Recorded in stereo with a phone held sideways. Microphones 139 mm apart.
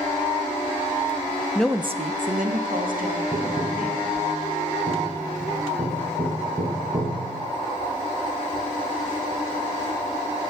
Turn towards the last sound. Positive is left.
turn(degrees=-35)  # may be behind; listen again after turning